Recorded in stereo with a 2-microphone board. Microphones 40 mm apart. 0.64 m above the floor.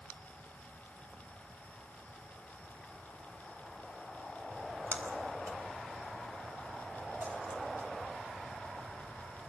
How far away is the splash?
About 4 m.